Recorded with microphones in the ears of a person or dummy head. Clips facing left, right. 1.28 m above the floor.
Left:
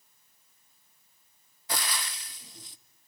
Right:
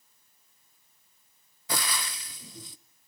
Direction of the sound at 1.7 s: 70° right (ahead or behind).